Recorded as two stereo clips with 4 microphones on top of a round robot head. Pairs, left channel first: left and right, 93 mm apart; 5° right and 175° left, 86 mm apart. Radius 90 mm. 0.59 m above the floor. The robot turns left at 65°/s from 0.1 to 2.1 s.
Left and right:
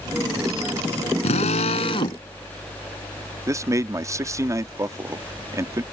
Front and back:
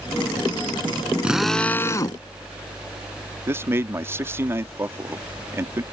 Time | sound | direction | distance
1.2 | a drill | 95° left | ?
3.5 | a man speaking | 135° right | ?